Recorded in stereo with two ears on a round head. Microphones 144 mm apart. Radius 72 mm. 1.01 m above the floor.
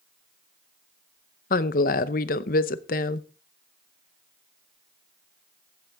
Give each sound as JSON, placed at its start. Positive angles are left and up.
{"t": 1.5, "sound": "a woman speaking", "side_deg": 55, "distance_m": 0.8}